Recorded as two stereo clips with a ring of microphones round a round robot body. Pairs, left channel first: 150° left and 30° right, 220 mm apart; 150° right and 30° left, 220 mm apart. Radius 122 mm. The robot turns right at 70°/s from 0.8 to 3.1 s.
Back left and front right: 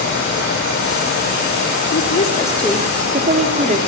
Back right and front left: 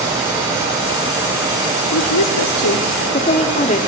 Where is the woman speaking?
175° right, 1.8 m; by 3.8 s 90° right, 1.8 m.